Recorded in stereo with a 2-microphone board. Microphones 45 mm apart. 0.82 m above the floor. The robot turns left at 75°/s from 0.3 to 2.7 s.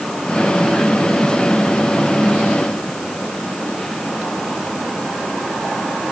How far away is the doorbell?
No doorbell in this recording.